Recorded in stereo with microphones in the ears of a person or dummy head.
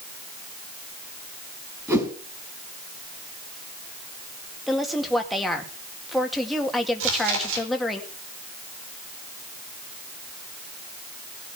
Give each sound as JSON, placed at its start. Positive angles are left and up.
{"t": 1.9, "sound": "a whoosh", "side_deg": -20, "distance_m": 5.0}
{"t": 4.7, "sound": "a woman speaking", "side_deg": 5, "distance_m": 2.0}
{"t": 7.0, "sound": "chewing", "side_deg": -75, "distance_m": 4.5}